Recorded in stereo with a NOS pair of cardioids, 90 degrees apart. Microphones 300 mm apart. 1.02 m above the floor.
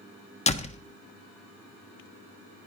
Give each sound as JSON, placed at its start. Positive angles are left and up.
{"t": 0.5, "sound": "a door slam", "azimuth_deg": 20, "distance_m": 1.2}